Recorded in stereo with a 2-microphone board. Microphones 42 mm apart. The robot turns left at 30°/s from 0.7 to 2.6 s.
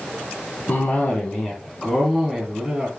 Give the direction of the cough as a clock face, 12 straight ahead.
10 o'clock.